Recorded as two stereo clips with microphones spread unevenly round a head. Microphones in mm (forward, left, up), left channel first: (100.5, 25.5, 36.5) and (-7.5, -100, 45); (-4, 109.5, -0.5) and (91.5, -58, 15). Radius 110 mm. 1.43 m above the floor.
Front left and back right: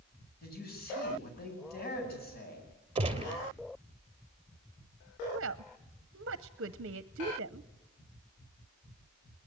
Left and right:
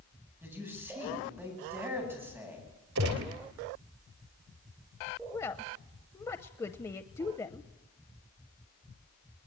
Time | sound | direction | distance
0.4 | a man speaking | 20° left | 9.5 m
3.0 | a gunshot | 75° right | 3 m
5.3 | a woman speaking | 160° right | 0.5 m